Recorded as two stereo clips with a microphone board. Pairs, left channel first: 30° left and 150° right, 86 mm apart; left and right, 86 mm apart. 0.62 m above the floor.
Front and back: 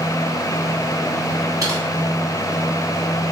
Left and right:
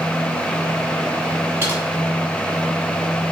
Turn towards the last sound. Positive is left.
turn(degrees=-135)